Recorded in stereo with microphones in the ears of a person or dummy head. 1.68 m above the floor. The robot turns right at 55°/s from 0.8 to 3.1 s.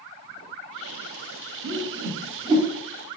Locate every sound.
1.6 s a whoosh: 70° right (ahead or behind), 1.0 m; by 2.7 s 15° right (ahead or behind), 1.0 m